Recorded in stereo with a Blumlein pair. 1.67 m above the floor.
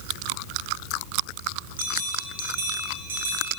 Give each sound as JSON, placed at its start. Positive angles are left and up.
{"t": 1.8, "sound": "a bell", "azimuth_deg": -60, "distance_m": 2.0}